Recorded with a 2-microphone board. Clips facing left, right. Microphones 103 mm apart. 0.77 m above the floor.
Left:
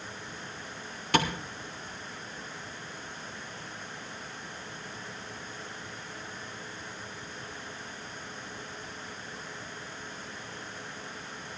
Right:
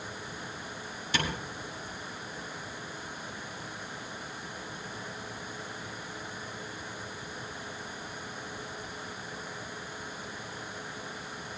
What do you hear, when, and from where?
1.1 s tapping: 65° left (ahead or behind), 3 m